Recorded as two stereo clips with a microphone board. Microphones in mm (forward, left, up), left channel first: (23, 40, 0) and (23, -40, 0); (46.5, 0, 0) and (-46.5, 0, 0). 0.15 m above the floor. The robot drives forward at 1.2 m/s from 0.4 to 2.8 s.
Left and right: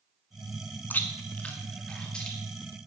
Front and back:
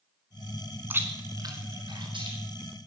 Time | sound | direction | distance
0.9 | chewing | 135° left | 1.2 m